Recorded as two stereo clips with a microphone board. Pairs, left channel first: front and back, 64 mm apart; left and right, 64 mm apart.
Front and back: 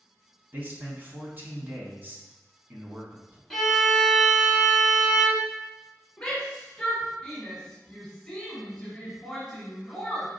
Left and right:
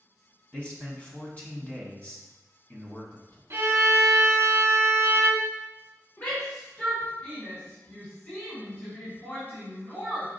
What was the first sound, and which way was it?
A man speaking, 145° left.